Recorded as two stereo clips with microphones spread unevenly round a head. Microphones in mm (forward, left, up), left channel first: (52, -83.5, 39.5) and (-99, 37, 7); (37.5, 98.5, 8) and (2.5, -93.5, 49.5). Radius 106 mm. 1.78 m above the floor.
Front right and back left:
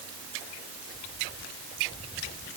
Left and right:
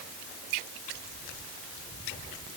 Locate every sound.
Only background noise.